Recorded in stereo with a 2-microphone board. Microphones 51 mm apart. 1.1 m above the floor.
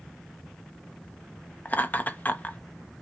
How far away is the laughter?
About 0.6 m.